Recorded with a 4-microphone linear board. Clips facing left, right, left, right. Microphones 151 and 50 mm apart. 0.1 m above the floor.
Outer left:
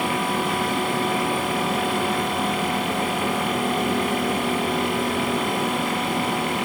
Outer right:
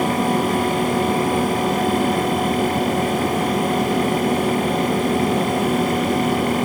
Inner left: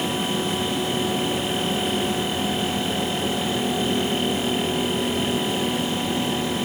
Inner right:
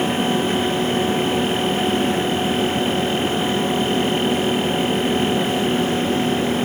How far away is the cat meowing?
I don't hear a cat meowing.